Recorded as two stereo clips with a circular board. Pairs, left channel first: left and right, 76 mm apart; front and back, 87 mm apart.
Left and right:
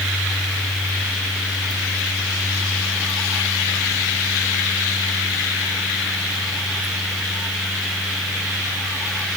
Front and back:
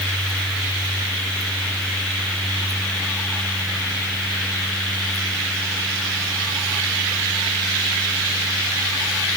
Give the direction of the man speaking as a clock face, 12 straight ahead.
I don't hear a man speaking.